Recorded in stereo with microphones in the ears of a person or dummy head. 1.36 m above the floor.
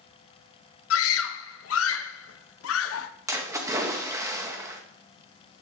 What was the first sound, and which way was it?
A scream, 85° left.